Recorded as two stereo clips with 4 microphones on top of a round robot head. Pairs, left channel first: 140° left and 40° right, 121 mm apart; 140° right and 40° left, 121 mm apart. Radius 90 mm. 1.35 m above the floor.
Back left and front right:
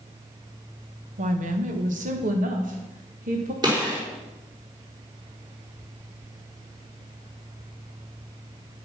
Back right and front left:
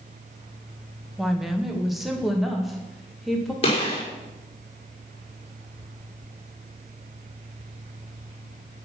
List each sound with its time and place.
1.2 s a woman speaking: 50° right, 1.6 m
3.6 s a gunshot: 100° right, 5 m